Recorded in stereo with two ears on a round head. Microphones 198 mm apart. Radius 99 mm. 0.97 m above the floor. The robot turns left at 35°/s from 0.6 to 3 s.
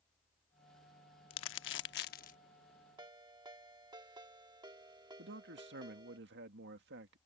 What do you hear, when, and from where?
1.3 s crumpling: 65° left (ahead or behind); by 2.4 s 35° left (ahead or behind)
3.0 s a ringtone: 20° right (ahead or behind)
5.2 s a man speaking: 55° right (ahead or behind)